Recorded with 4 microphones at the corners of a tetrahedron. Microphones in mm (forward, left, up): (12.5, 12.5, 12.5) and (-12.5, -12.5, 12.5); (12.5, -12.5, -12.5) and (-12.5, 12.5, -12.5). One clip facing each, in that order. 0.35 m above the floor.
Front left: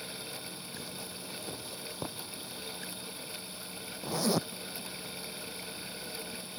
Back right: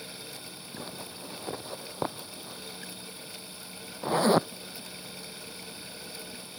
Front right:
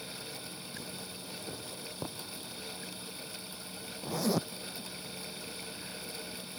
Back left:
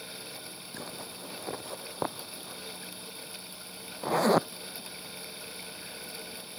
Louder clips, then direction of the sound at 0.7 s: Back right 5 dB, back left 5 dB; straight behind.